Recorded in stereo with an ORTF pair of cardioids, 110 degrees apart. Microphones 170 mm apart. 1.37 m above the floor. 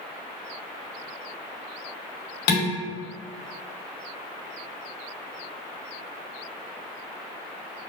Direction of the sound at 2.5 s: 70° left.